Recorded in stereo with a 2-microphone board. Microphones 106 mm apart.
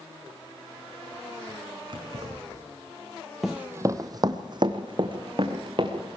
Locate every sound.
1.9 s keys jangling: 50° right (ahead or behind), 4.5 m
3.4 s running footsteps: 5° right (ahead or behind), 0.7 m; by 6.2 s 50° right (ahead or behind), 3.5 m